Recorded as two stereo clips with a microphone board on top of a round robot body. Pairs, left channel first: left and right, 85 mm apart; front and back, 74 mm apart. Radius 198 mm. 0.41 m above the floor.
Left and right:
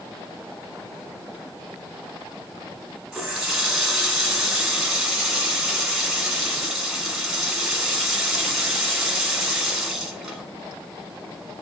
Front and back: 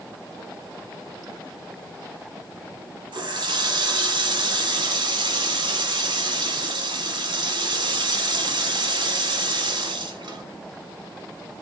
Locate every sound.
3.1 s a running tap: 175° right, 1.5 m